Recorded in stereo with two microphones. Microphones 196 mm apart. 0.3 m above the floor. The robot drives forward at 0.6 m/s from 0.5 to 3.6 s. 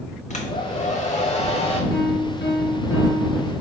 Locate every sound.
0.3 s a hair dryer: 35° left (ahead or behind), 1.1 m; by 1.8 s 30° left (ahead or behind), 1.4 m
1.9 s a piano: 55° left (ahead or behind), 1.6 m; by 3.5 s 85° left, 1.3 m